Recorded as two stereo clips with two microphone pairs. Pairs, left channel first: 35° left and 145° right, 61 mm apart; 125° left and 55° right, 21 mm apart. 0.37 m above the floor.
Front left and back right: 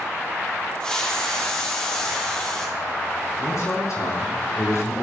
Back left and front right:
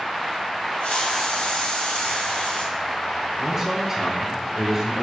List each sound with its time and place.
0.8 s a hiss: 110° left, 4.5 m
3.4 s a man speaking: 20° left, 5.5 m